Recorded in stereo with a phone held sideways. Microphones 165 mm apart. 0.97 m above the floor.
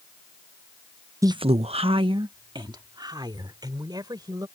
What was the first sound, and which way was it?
A woman speaking, 20° right (ahead or behind).